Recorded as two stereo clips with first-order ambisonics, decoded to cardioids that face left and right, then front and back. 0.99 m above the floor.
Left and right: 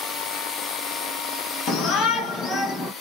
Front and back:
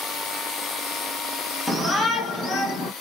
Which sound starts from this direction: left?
A shout, at 1.7 s.